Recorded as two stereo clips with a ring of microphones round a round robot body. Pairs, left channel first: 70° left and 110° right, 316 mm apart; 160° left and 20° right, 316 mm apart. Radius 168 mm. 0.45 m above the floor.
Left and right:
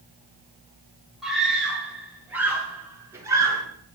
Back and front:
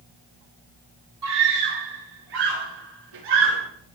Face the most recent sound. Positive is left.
turn(degrees=-35)